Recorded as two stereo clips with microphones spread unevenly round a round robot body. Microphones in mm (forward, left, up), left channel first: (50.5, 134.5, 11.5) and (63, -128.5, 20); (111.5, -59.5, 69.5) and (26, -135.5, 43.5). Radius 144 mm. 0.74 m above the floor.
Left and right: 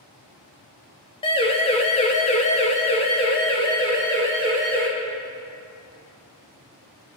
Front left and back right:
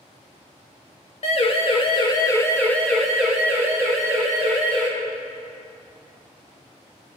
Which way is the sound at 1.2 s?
30° left.